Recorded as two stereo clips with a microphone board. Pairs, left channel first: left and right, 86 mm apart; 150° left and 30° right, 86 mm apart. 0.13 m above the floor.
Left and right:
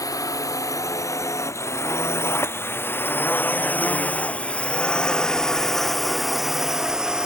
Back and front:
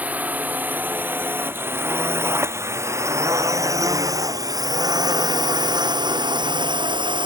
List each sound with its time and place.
0.0 s a drone: 40° left; by 7.3 s 10° right